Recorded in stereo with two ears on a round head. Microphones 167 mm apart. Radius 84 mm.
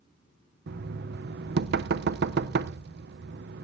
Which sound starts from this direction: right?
Knocking, at 0.7 s.